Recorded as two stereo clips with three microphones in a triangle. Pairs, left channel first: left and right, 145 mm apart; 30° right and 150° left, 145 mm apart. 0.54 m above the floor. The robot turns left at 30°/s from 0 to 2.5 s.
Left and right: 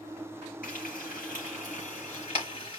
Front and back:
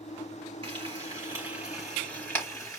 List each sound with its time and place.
0.6 s frying: 95° left, 4 m; by 2.8 s 40° left, 4 m